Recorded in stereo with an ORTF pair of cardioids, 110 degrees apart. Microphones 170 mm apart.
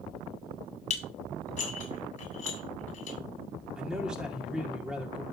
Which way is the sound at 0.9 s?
45° left.